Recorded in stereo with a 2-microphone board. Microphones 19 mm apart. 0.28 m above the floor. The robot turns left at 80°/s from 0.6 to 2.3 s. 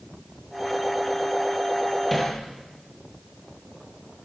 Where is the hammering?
Centre (ahead or behind), 6 m; by 2.4 s 15° left (ahead or behind), 6 m.